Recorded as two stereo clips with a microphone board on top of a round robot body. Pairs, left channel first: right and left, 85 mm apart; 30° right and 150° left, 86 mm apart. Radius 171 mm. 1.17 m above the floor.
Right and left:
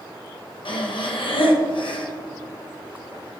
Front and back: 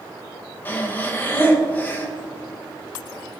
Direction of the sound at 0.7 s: 95° right.